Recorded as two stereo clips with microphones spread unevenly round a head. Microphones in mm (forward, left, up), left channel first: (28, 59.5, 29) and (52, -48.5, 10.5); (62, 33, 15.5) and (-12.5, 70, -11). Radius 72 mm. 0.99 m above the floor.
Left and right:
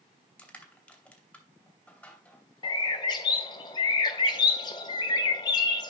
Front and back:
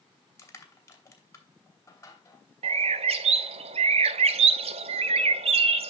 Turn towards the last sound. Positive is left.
turn(degrees=155)